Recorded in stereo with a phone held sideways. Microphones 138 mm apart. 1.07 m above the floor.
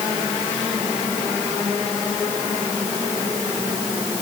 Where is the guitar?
No guitar in this recording.